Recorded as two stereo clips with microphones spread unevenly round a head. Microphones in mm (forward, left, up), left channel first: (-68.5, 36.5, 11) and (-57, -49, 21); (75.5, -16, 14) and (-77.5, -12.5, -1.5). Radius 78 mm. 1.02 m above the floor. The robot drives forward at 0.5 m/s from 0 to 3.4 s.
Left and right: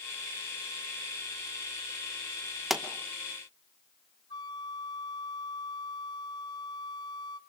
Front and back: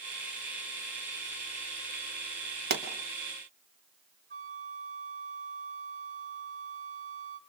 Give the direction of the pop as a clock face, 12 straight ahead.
6 o'clock.